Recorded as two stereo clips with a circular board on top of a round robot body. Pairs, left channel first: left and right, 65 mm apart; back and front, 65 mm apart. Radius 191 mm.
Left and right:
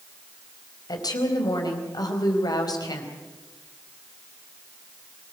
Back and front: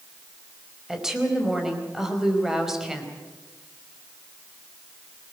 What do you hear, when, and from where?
0.9 s a woman speaking: 85° left, 4.5 m